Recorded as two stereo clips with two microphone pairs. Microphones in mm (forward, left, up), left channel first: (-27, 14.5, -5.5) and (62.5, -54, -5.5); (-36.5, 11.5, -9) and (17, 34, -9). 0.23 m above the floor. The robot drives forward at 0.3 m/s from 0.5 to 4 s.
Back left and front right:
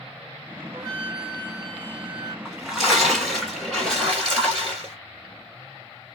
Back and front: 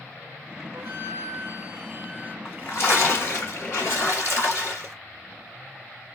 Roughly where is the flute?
Ahead.